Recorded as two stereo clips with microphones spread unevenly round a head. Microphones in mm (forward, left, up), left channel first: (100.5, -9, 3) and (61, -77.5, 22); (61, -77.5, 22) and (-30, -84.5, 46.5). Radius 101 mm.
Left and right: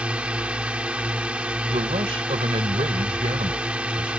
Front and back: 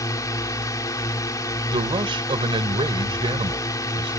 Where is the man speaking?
155° right.